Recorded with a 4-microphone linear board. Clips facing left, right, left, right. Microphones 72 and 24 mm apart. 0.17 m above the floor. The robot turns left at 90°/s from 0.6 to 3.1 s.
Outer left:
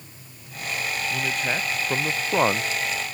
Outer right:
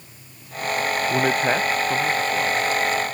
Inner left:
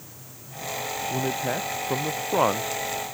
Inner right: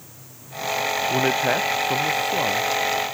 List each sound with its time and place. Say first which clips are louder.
1.1 s a man speaking: outer right 7 dB, inner right 6 dB; 115° right; by 2.8 s 95° left